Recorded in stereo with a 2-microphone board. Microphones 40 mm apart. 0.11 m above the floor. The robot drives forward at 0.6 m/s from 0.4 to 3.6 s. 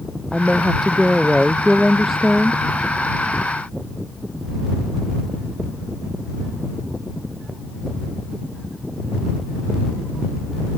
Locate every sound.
0.3 s a woman speaking: centre (ahead or behind); by 2.6 s 5° right (ahead or behind)